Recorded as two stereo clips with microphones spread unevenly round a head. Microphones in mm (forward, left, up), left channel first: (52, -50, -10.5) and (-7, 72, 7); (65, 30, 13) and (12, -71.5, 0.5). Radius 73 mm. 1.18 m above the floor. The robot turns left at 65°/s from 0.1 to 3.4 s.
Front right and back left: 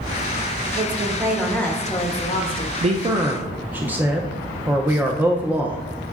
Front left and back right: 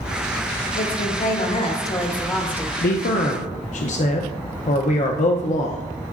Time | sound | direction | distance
0.8 | a woman speaking | 75° left | 1.3 m
2.8 | a man speaking | 75° left | 0.5 m